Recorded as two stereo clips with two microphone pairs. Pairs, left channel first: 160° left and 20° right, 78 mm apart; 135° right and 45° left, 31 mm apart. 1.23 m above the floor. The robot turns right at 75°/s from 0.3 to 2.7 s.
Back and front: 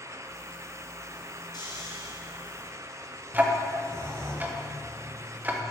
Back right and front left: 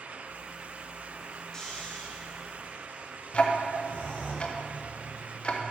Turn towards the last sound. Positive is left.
turn(degrees=-85)